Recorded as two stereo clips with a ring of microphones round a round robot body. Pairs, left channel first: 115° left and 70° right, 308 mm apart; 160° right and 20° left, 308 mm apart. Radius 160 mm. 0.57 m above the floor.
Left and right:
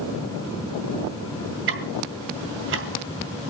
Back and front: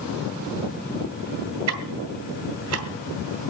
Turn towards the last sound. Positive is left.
turn(degrees=-15)